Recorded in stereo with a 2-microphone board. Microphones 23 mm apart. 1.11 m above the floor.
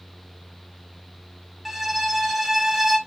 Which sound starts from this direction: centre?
A violin, at 1.6 s.